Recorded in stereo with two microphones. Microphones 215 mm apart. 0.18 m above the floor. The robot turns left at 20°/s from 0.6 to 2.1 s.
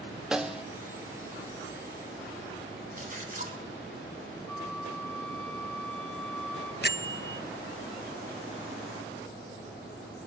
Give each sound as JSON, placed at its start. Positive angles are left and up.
{"t": 0.3, "sound": "a snare drum", "side_deg": -5, "distance_m": 1.1}
{"t": 3.0, "sound": "a splash", "side_deg": -40, "distance_m": 3.0}
{"t": 4.5, "sound": "a flute", "side_deg": 5, "distance_m": 1.3}
{"t": 6.8, "sound": "a bell", "side_deg": 50, "distance_m": 0.7}